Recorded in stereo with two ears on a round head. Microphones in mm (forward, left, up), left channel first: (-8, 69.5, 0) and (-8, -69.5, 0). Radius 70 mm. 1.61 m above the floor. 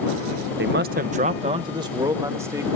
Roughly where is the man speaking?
Right.